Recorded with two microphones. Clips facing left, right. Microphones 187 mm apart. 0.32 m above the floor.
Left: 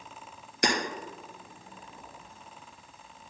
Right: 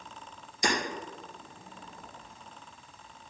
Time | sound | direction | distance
0.6 | hammering | 70° left (ahead or behind) | 2.5 m